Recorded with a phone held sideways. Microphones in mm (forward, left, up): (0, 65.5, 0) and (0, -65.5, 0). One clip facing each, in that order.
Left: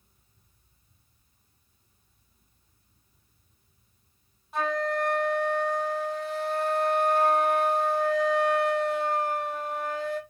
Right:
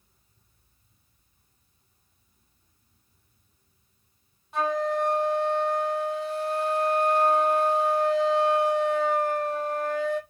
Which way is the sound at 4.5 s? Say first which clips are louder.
Right 2 dB; centre (ahead or behind).